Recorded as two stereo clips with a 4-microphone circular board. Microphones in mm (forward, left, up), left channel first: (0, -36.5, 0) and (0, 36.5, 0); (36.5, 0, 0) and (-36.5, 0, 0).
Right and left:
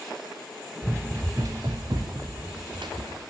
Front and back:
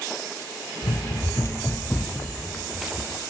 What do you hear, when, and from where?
0.8 s running footsteps: 30° left, 1.4 m; by 3.2 s 100° left, 2.0 m